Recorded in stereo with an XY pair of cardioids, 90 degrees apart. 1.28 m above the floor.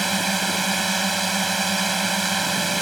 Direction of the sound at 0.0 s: 20° right.